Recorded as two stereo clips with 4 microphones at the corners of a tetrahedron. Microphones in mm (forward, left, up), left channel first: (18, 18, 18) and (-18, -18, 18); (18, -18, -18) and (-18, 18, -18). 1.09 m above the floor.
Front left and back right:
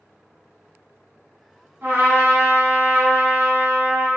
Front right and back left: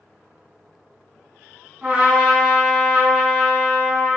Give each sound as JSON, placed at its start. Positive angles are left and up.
{"t": 1.8, "sound": "a trumpet", "azimuth_deg": -155, "distance_m": 1.4}